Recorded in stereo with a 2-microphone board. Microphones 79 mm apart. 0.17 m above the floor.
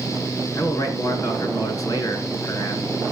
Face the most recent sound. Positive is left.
turn(degrees=45)  # may be behind; listen again after turning